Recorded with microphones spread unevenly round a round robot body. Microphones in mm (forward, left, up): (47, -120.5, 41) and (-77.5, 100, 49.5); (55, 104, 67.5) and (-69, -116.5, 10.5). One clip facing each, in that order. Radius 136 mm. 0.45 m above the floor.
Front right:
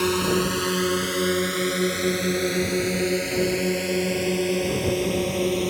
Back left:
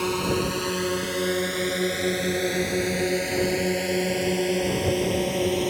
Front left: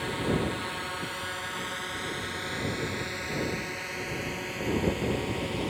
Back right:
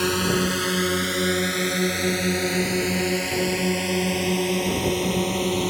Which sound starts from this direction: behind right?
A drone, at 0.0 s.